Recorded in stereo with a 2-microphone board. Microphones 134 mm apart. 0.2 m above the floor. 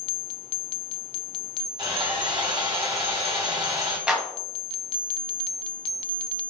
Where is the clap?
5° right (ahead or behind), 0.8 m.